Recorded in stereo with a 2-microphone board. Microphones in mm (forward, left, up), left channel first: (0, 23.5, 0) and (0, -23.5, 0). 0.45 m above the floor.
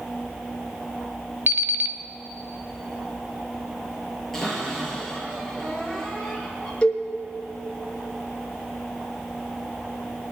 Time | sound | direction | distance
1.5 | an alarm clock | 55° right (ahead or behind) | 0.9 m
4.3 | a cupboard door | 5° left (ahead or behind) | 5.5 m
6.8 | a cowbell | 20° left (ahead or behind) | 4 m